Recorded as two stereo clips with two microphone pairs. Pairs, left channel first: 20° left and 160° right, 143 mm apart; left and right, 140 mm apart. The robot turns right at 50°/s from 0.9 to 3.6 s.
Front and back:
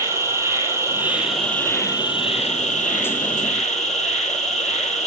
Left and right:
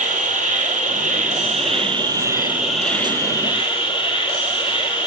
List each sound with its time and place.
0.0 s an insect: 95° right, 3.5 m; by 5.1 s 40° left, 3.5 m